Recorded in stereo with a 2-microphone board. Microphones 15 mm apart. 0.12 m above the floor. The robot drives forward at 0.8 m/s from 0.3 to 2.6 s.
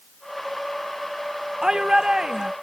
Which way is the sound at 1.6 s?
45° right (ahead or behind).